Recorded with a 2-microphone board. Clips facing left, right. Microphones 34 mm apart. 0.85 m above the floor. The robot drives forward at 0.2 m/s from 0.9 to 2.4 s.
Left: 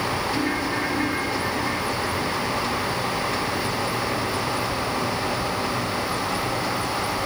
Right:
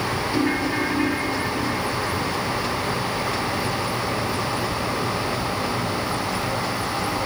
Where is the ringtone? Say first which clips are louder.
Right 2 dB; 50° right (ahead or behind), 8.5 m.